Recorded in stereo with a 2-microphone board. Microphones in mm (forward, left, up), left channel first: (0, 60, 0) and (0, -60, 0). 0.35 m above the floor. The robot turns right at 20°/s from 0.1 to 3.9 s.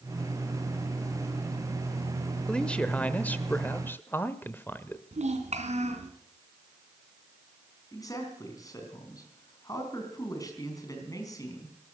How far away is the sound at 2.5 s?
About 0.8 m.